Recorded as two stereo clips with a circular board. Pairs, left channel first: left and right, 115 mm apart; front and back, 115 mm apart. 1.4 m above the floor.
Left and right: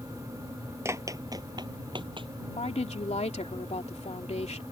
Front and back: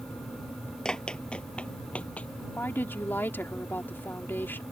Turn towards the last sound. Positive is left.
turn(degrees=70)